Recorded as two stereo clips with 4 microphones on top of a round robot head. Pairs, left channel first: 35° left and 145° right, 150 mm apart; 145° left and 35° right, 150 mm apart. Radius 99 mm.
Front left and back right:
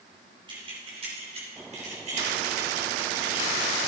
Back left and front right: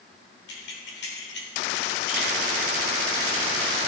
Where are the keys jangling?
155° left, 3.5 m; by 3.8 s straight behind, 4 m.